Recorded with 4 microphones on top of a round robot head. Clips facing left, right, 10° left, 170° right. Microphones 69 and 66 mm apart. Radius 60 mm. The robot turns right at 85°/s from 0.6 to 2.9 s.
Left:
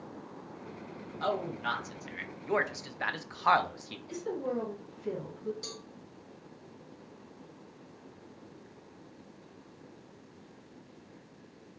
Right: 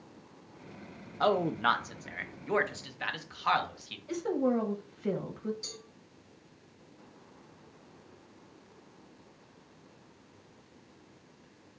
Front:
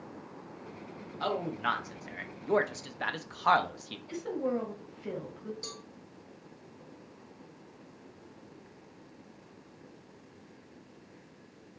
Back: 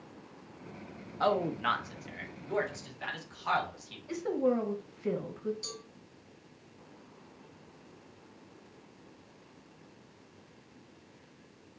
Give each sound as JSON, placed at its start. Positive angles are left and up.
{"t": 1.2, "sound": "a man speaking", "azimuth_deg": -115, "distance_m": 0.8}
{"t": 4.1, "sound": "a woman speaking", "azimuth_deg": -100, "distance_m": 1.3}
{"t": 5.6, "sound": "a cowbell", "azimuth_deg": 60, "distance_m": 2.5}